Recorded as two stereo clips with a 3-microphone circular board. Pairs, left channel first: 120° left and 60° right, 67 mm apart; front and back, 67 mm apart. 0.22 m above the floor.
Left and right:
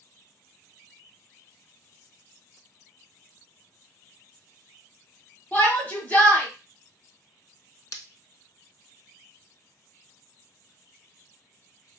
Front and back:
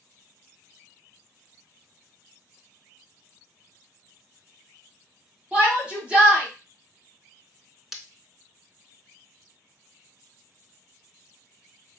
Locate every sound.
5.5 s a shout: 130° left, 1.1 m
7.9 s breaking glass: 95° left, 0.5 m